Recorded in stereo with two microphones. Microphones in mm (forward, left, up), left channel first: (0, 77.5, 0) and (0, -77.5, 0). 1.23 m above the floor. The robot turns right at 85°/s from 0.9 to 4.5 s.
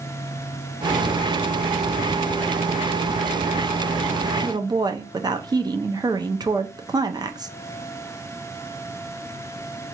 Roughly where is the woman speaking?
Right.